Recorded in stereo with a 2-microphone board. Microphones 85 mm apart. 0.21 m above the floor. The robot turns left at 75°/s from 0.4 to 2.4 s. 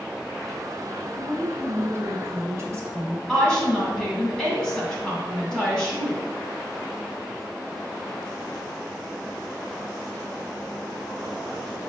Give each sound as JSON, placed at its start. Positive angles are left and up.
{"t": 1.2, "sound": "a woman speaking", "azimuth_deg": -10, "distance_m": 1.2}
{"t": 3.3, "sound": "a woman speaking", "side_deg": 10, "distance_m": 1.8}